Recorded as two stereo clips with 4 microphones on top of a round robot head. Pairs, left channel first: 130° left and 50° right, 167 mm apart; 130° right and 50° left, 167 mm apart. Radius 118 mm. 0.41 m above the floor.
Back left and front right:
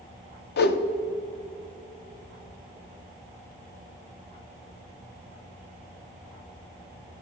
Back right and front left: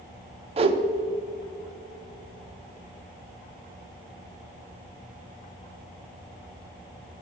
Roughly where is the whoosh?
Left.